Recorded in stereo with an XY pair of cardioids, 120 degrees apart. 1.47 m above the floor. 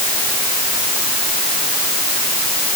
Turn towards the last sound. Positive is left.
No sound to turn to.